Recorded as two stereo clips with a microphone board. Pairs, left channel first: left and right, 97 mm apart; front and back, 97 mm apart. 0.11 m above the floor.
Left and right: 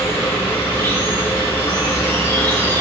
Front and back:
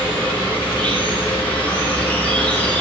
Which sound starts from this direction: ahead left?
An insect, at 0.0 s.